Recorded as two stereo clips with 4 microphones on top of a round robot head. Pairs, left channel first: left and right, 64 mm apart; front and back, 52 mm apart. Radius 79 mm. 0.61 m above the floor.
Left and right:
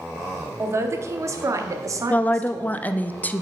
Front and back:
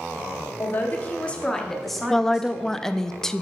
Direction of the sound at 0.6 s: 50° right.